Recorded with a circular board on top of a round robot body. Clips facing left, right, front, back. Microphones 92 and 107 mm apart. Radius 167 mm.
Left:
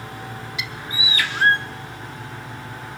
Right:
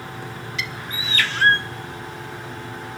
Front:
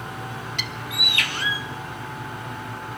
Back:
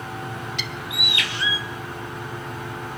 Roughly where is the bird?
Ahead.